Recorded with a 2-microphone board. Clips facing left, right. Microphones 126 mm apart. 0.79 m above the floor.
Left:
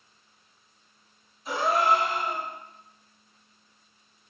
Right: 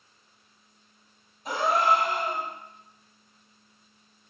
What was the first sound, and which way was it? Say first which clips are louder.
A gasp: even; 55° right (ahead or behind).